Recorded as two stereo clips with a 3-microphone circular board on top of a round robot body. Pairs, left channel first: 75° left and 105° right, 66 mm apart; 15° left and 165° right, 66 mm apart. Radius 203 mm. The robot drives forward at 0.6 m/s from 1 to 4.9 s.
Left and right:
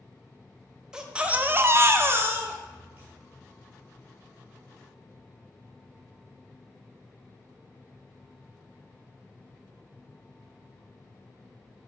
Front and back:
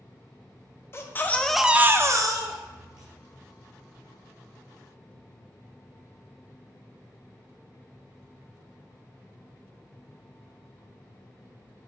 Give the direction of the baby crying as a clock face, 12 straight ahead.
1 o'clock.